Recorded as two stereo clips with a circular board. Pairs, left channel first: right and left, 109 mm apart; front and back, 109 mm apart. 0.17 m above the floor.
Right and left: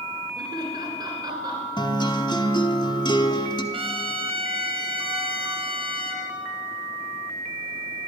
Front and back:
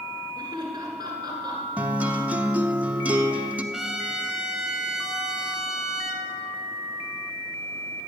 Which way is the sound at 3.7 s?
95° left.